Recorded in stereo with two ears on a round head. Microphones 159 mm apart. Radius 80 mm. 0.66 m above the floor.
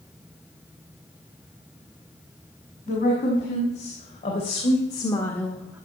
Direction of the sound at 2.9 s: 45° left (ahead or behind).